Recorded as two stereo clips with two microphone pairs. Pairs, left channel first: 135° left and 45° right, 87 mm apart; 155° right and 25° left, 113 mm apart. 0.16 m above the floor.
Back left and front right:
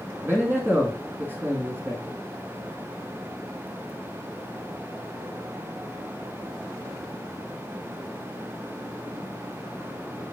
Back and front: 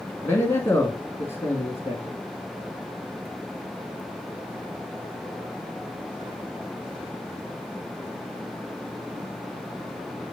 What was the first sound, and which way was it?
A man speaking, 100° right.